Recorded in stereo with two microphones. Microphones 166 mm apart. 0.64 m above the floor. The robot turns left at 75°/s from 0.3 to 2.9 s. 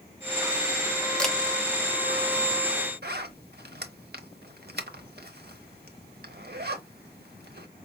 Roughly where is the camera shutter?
Centre.